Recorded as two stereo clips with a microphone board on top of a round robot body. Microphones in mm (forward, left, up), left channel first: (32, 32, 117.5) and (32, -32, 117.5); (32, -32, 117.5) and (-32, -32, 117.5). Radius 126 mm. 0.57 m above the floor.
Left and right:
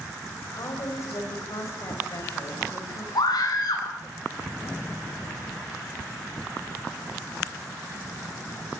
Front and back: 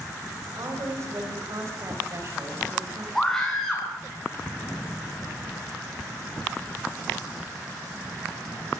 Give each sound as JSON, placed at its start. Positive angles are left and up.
{"t": 0.6, "sound": "a woman speaking", "azimuth_deg": 135, "distance_m": 4.5}
{"t": 3.1, "sound": "a scream", "azimuth_deg": 85, "distance_m": 9.0}